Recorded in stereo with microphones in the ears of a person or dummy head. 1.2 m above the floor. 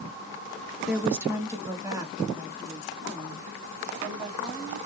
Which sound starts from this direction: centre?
A woman speaking, at 0.9 s.